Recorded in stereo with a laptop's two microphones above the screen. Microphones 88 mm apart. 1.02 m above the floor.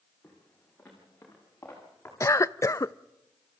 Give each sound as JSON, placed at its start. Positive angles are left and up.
{"t": 0.2, "sound": "footsteps", "side_deg": 15, "distance_m": 6.0}
{"t": 2.2, "sound": "a cough", "side_deg": 35, "distance_m": 0.5}